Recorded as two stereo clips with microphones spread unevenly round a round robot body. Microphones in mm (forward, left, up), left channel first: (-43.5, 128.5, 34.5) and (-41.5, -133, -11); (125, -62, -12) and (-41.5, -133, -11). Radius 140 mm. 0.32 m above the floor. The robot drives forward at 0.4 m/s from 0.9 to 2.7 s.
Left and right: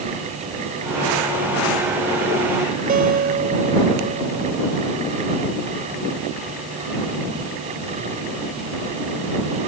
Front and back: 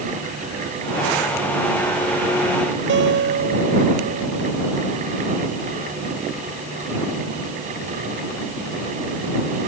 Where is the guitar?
145° right.